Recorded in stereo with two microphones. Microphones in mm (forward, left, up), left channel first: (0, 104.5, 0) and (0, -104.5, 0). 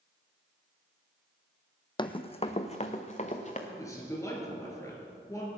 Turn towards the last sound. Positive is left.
turn(degrees=15)  # may be behind; listen again after turning